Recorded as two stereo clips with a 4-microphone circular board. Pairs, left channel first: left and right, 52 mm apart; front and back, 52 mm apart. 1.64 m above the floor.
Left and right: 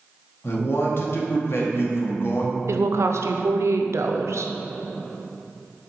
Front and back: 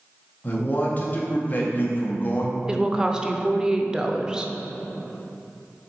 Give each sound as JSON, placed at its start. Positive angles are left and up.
{"t": 0.4, "sound": "a man speaking", "azimuth_deg": 55, "distance_m": 1.2}
{"t": 2.7, "sound": "a woman speaking", "azimuth_deg": -105, "distance_m": 0.5}